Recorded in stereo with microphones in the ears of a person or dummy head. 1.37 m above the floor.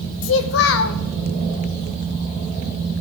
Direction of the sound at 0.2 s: 70° left (ahead or behind).